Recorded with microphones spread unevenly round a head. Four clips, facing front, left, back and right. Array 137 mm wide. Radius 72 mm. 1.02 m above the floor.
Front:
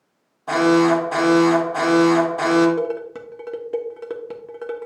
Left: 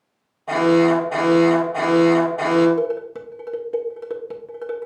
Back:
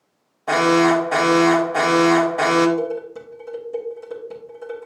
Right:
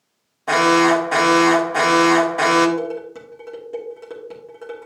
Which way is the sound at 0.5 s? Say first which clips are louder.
Right 1 dB, even; 115° right.